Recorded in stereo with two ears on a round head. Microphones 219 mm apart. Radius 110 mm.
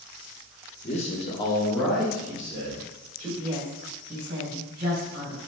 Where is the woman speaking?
30° right (ahead or behind), 1.8 m.